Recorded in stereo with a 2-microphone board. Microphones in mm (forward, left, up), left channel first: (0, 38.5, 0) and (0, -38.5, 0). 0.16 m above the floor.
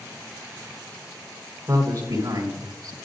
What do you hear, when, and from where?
1.7 s a man speaking: 50° right (ahead or behind), 2.5 m; by 2.9 s 65° right (ahead or behind), 3 m